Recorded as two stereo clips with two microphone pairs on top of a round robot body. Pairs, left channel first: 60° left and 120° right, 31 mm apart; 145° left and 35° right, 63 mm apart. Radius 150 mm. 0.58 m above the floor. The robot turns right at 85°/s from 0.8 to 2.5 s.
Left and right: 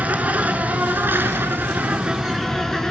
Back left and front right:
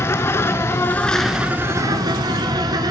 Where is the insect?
160° right, 1.0 m; by 2.9 s 15° right, 1.0 m.